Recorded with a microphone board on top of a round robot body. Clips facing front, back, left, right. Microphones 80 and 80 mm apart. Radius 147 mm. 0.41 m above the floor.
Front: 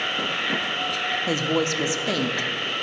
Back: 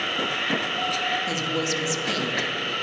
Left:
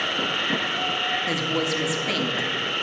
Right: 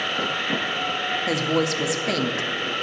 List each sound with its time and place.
0.0 s an insect: 95° left, 4.5 m
1.3 s a woman speaking: 25° right, 1.1 m